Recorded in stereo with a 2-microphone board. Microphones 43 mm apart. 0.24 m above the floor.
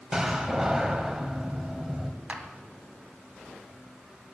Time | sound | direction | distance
0.1 | a door slam | 10° right (ahead or behind) | 1.0 m
2.3 | a clap | 30° right (ahead or behind) | 1.2 m